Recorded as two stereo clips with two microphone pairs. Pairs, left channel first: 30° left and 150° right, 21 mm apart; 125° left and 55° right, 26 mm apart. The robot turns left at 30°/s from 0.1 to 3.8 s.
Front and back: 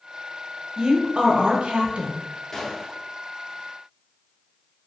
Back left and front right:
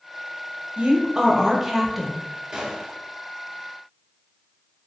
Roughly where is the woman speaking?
Right.